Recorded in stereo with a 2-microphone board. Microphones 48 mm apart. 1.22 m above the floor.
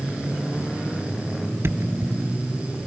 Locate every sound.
1.6 s a thud: 60° right (ahead or behind)